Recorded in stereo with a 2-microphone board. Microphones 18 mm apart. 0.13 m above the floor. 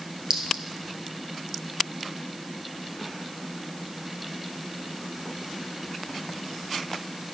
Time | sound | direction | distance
0.3 | a clink | 50° right (ahead or behind) | 1.6 m